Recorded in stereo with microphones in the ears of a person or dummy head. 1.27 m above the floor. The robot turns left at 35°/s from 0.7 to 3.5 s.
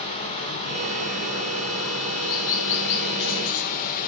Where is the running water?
150° left, 2.5 m; by 4.1 s 50° left, 2.5 m.